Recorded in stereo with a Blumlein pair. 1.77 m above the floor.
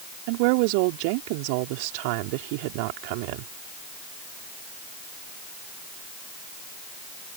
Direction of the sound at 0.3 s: 45° right.